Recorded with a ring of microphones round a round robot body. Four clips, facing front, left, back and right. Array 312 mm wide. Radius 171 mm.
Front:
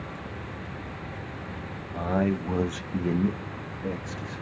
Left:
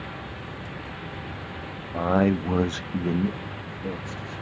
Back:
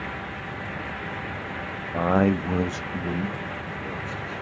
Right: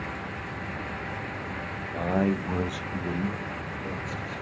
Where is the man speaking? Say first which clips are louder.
Left 4 dB, back 5 dB; 155° left, 0.6 m; by 4.4 s 20° left, 1.1 m.